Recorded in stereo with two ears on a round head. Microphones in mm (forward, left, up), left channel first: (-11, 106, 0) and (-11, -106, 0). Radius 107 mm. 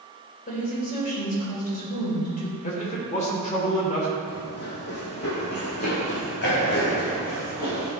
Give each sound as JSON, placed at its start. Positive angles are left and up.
{"t": 0.5, "sound": "a woman speaking", "side_deg": 35, "distance_m": 4.0}
{"t": 2.6, "sound": "a man speaking", "side_deg": 30, "distance_m": 3.0}
{"t": 4.3, "sound": "running footsteps", "side_deg": 45, "distance_m": 2.0}